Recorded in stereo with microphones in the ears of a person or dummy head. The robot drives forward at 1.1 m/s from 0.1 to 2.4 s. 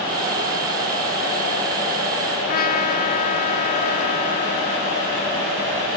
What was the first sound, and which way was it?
A trumpet, 45° left (ahead or behind).